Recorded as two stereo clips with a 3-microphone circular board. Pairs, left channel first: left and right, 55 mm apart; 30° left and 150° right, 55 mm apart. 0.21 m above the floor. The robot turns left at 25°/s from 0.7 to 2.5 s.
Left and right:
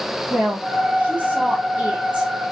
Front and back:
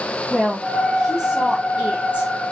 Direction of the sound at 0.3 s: 80° right.